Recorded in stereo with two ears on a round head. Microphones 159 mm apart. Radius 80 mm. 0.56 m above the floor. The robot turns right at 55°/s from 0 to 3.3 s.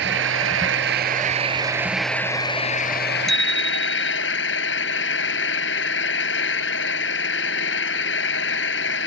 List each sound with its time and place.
0.0 s an engine running: 110° right; by 9.1 s 70° left
3.3 s a bicycle bell: centre (ahead or behind)